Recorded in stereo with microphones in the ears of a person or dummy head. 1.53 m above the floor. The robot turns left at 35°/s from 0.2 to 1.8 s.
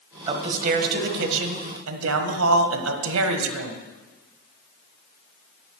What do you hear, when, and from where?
0.3 s a man speaking: 30° right, 1.2 m; by 3.8 s 80° right, 1.2 m